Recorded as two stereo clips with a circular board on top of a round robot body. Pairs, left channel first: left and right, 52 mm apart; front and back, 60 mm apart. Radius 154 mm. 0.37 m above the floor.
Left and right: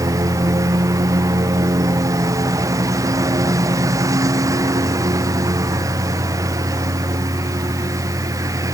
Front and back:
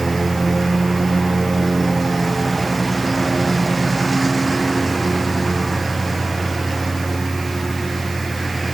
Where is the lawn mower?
90° right.